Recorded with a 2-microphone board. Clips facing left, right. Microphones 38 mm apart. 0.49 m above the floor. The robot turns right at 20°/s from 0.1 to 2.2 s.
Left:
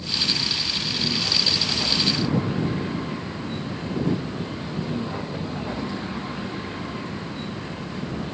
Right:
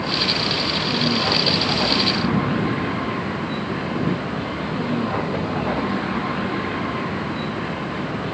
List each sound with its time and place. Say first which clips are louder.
0.0 s a vehicle: right 4 dB; 75° right; by 8.3 s 30° right